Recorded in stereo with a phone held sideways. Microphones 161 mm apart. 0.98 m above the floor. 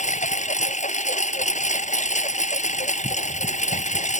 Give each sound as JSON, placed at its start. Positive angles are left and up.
{"t": 0.0, "sound": "a lawn mower", "side_deg": 50}